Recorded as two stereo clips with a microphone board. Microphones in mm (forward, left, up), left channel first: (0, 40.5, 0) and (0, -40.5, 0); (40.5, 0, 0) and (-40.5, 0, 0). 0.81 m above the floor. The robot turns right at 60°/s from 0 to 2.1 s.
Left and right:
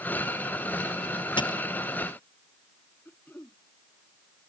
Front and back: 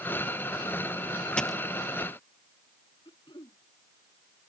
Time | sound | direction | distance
1.4 | a dropped coin | 80° left | ?
3.0 | throat clearing | 25° left | ?